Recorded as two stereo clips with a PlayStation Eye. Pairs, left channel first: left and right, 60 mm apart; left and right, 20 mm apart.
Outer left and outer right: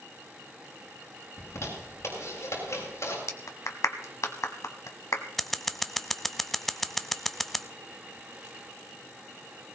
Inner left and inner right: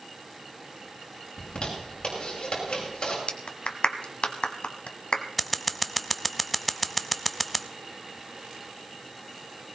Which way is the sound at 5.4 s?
5° left (ahead or behind).